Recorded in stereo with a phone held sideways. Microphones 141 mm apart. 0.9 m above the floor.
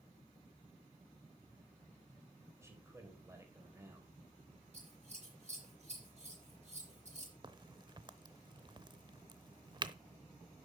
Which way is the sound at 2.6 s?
20° right (ahead or behind).